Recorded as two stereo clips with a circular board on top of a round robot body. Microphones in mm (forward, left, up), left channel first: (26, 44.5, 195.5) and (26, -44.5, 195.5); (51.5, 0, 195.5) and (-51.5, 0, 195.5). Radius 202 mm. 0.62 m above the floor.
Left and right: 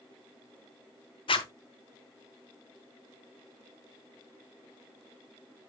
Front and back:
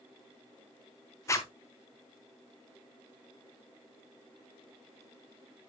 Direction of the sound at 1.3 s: 65° left.